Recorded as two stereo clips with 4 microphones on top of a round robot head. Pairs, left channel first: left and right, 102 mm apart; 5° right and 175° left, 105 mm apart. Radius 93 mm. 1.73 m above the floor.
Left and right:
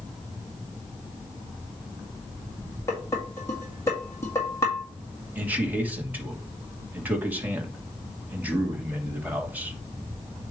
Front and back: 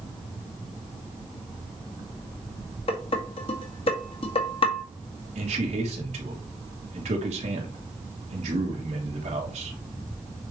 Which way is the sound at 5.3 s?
165° right.